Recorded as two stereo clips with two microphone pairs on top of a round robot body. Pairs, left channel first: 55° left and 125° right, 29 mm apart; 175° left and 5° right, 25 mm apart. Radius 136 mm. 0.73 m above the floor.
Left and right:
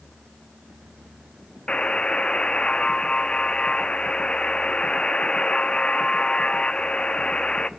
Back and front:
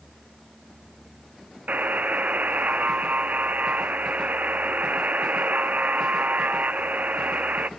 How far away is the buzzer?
About 1.0 m.